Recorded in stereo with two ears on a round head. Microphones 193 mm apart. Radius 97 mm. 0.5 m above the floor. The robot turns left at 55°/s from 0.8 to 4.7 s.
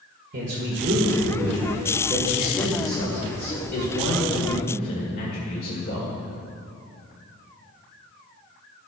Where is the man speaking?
90° right, 2 m; by 6.1 s 55° left, 2 m.